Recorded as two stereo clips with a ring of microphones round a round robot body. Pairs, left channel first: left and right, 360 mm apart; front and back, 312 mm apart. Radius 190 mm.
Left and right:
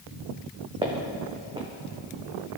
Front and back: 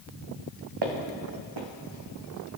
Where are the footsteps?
165° right, 1.4 m.